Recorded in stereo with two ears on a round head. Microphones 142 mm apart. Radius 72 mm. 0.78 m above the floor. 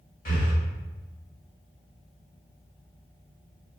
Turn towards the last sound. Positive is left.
turn(degrees=50)  # may be behind; listen again after turning